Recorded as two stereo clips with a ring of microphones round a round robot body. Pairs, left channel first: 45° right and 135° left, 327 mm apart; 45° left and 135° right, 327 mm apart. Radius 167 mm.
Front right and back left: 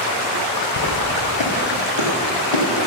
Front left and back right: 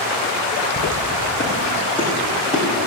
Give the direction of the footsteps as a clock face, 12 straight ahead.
1 o'clock.